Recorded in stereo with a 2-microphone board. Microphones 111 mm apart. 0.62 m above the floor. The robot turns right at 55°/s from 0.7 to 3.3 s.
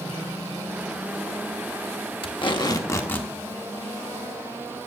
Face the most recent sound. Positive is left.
turn(degrees=170)